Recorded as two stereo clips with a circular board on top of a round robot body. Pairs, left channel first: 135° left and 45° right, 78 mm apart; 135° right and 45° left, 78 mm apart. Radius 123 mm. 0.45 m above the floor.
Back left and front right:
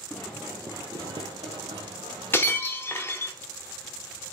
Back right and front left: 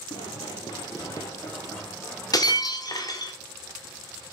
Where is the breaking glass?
165° right, 1.0 m.